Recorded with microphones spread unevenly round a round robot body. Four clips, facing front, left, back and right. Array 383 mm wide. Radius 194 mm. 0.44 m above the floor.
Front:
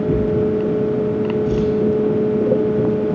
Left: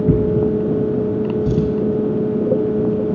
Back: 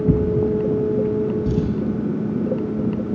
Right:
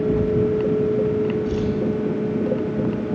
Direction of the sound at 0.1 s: 120° left.